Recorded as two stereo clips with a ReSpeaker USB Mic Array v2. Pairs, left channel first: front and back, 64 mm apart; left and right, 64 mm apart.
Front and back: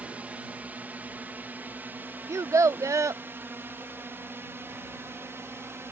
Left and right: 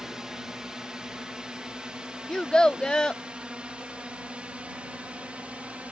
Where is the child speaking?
165° left.